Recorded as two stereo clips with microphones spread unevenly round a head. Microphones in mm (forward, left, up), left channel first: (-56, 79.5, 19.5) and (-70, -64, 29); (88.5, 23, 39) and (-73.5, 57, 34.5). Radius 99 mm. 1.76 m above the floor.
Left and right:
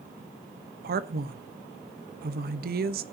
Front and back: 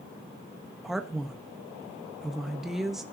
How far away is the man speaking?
About 1.0 m.